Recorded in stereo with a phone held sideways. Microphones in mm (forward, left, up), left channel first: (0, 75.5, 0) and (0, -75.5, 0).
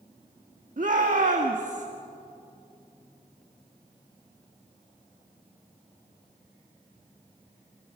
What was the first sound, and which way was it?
A shout, 60° right (ahead or behind).